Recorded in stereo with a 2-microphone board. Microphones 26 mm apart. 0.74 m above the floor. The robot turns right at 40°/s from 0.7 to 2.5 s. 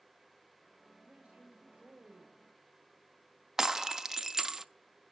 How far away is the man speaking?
About 4.5 m.